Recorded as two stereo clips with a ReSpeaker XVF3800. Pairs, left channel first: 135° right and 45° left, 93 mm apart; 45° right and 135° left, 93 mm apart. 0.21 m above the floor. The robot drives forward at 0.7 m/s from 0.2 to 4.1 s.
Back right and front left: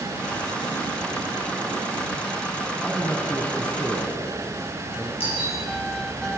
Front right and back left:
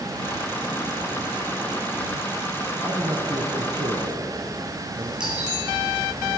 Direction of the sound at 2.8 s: 135° left.